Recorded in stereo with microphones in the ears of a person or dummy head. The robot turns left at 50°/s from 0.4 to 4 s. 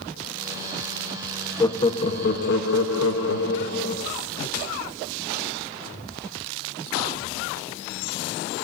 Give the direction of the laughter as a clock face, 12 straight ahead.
7 o'clock.